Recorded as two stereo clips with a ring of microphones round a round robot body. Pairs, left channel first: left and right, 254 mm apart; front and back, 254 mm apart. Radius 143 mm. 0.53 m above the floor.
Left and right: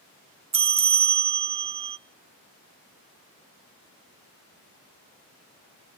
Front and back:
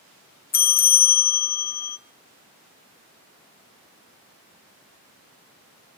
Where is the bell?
35° right, 0.6 m.